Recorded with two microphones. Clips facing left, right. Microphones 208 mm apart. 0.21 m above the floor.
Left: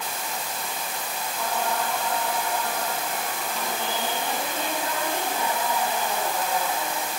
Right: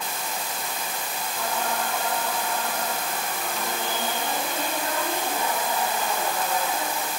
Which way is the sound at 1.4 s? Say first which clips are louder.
Left 1 dB; 55° right (ahead or behind).